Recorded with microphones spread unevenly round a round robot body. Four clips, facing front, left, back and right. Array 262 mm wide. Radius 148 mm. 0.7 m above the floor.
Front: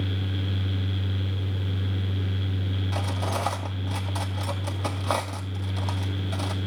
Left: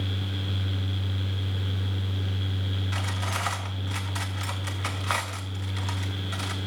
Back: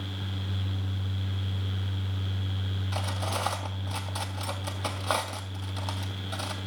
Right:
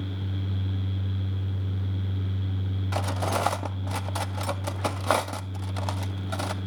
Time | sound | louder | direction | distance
2.9 | cutlery clinking | right 7 dB, front 2 dB | 65° right | 0.6 m